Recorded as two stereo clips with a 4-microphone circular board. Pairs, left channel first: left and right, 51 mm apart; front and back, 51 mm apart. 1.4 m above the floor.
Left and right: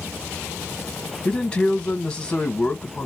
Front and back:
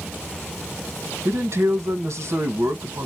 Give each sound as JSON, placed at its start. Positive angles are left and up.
{"t": 1.2, "sound": "a man speaking", "azimuth_deg": 155, "distance_m": 1.4}